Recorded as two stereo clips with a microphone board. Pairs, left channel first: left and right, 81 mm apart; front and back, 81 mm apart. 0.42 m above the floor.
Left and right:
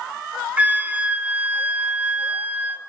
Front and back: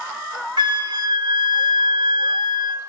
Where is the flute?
160° right, 0.8 m.